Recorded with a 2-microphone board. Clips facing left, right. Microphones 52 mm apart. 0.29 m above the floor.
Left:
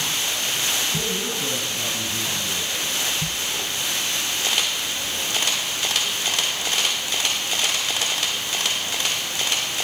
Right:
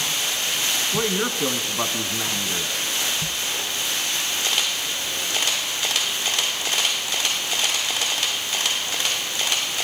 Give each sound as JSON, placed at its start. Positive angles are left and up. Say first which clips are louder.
{"t": 0.9, "sound": "a man speaking", "louder": "right 3 dB", "side_deg": -65, "distance_m": 3.0}